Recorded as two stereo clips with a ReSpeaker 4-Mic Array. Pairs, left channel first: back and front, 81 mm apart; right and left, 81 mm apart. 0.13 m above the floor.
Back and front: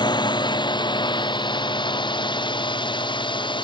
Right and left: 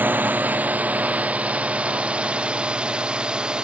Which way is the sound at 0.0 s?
155° left.